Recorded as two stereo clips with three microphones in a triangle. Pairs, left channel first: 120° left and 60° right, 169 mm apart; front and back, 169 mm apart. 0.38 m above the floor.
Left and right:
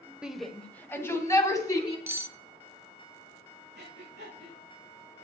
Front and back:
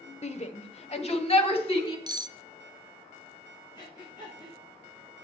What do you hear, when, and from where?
0.2 s a shout: 20° left, 1.2 m; by 2.0 s 55° left, 3 m
2.1 s cutlery clinking: 130° right, 0.6 m
3.8 s breathing: 65° right, 5 m